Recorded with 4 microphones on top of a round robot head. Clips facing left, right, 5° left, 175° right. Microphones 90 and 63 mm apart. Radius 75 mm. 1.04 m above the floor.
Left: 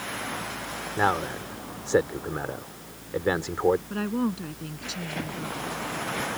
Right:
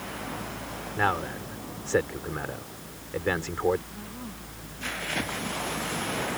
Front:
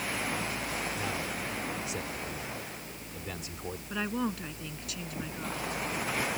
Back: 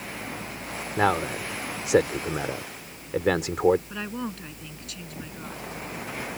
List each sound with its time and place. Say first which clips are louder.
1.0 s a man speaking: left 2 dB, back 11 dB; 165° left
3.9 s a woman speaking: left 13 dB, front 1 dB; 90° left